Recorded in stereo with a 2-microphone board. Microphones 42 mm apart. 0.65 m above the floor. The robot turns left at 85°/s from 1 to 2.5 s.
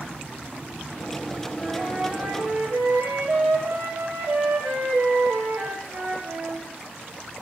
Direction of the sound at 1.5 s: 15° left.